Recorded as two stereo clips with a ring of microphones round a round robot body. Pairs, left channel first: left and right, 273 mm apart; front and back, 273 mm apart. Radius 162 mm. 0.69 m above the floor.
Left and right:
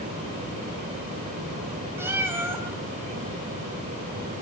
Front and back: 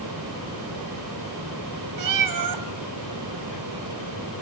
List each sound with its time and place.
2.0 s a cat meowing: 175° right, 3 m